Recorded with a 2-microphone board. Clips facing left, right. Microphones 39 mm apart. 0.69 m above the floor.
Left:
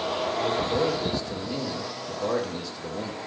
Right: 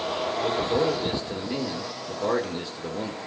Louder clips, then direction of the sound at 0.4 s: Right 2 dB; 25° right (ahead or behind).